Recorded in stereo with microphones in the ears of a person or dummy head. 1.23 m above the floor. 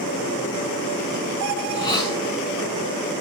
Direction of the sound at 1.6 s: 20° left (ahead or behind).